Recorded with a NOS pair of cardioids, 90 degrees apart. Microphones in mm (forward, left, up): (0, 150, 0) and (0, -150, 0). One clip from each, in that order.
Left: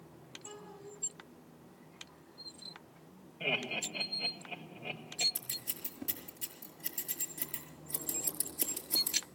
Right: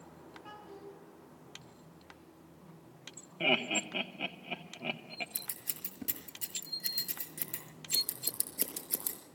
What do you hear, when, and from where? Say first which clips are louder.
0.4 s a child speaking: right 1 dB; 30° right, 10 m
3.4 s laughter: right 4 dB; 60° right, 2.5 m
5.3 s scissors: left 2 dB; 30° right, 5.5 m